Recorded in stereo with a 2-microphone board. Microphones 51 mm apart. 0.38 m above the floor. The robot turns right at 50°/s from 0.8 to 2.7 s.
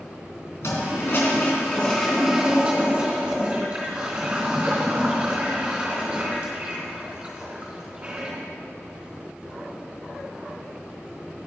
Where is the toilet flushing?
110° left, 3.5 m; by 8.4 s 155° right, 3.5 m.